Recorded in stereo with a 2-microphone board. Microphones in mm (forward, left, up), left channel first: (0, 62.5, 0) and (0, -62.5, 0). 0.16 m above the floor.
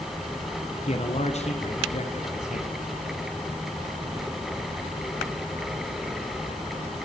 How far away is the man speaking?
About 2.5 m.